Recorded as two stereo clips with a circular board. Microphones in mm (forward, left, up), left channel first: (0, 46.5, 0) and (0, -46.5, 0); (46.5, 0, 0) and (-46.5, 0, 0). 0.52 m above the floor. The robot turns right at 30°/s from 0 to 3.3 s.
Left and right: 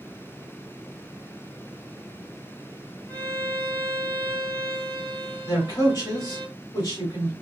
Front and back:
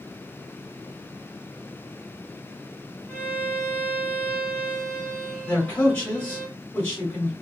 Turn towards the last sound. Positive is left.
turn(degrees=65)